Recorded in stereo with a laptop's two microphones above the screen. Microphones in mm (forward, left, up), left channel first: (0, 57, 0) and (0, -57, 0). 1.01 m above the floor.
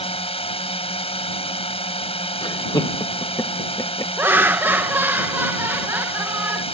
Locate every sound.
0.0 s a drone: 55° left (ahead or behind)
2.4 s laughter: 40° left (ahead or behind)
4.2 s laughter: 20° right (ahead or behind)